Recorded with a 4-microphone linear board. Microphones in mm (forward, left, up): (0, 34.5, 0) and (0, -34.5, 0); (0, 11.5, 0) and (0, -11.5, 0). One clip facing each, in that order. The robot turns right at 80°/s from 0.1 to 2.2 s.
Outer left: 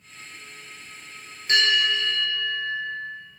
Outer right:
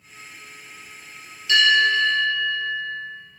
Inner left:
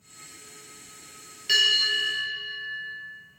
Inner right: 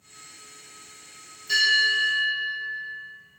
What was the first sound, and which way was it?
A bell, 120° left.